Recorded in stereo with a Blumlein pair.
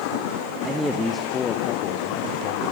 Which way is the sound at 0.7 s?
5° right.